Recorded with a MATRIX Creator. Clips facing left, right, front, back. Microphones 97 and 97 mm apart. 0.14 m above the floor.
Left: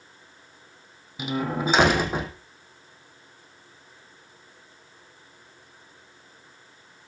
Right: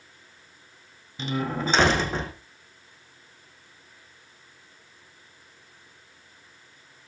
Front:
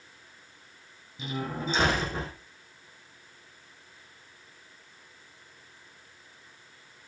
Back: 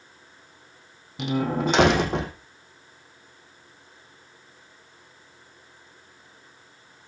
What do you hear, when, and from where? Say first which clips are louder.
1.2 s a door slam: left 1 dB, back 9 dB; 170° left, 4.5 m